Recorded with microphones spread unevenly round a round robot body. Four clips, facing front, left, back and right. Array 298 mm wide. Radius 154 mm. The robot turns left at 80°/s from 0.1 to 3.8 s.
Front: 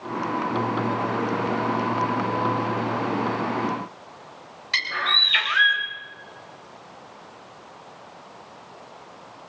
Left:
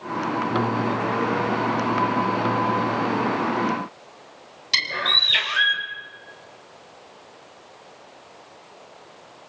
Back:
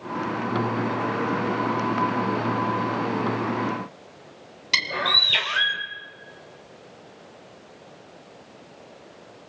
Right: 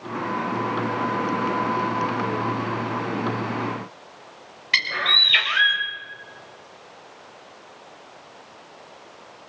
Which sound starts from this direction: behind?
A bird, at 4.7 s.